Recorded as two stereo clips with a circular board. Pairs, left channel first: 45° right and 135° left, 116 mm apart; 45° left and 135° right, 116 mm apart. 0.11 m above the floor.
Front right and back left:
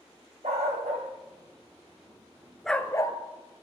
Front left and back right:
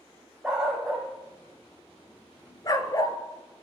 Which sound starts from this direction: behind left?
A dog barking, at 0.4 s.